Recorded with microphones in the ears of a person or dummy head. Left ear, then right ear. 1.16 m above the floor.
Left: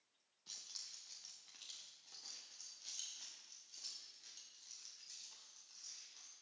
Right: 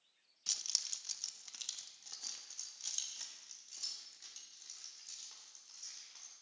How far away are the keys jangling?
About 0.7 m.